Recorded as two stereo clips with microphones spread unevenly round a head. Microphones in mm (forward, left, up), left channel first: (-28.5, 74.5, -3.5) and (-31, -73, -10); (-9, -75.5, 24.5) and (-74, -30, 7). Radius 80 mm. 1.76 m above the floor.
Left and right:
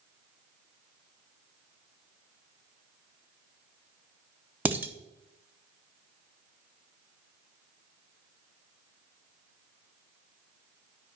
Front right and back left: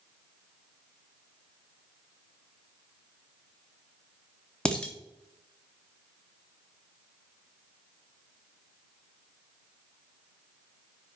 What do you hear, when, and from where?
4.7 s dishes clattering: 20° right, 0.8 m